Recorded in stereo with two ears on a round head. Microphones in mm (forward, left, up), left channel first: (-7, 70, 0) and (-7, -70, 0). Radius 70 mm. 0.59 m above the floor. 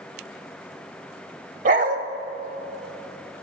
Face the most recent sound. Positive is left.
turn(degrees=-50)  # may be behind; listen again after turning